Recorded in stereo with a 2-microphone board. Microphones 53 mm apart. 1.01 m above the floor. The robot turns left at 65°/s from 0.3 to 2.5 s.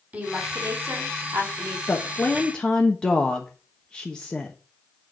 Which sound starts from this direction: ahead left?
A woman speaking, at 1.9 s.